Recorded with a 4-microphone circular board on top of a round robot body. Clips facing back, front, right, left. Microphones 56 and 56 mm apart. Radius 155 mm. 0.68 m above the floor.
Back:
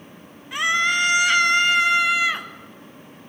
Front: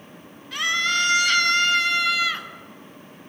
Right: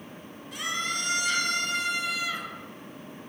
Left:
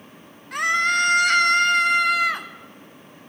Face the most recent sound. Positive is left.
turn(degrees=110)